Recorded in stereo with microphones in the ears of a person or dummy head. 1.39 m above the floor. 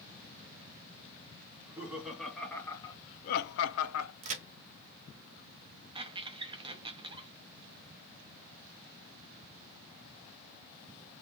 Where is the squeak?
35° right (ahead or behind), 0.6 m.